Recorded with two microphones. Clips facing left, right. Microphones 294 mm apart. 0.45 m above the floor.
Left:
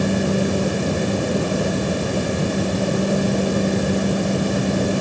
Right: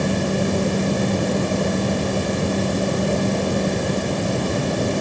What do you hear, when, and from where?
Only background noise.